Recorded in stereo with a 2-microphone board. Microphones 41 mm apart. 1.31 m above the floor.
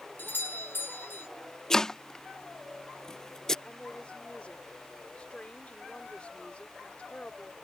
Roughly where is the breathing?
No breathing in this recording.